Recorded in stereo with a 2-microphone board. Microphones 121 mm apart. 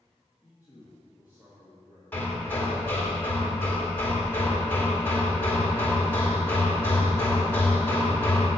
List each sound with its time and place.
0.4 s a man speaking: 15° right (ahead or behind), 1.6 m
2.1 s hammering: 15° left (ahead or behind), 1.5 m